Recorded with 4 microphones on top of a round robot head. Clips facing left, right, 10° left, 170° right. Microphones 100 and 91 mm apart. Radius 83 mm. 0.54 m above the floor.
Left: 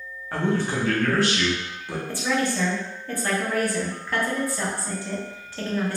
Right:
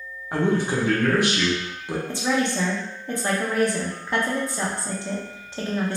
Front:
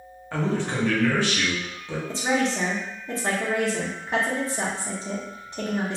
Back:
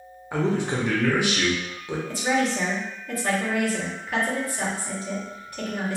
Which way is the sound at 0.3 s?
125° right.